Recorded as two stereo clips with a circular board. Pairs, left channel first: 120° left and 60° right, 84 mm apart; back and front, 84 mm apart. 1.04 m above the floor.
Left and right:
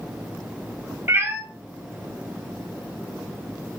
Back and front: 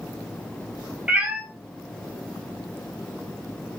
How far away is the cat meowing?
About 0.6 m.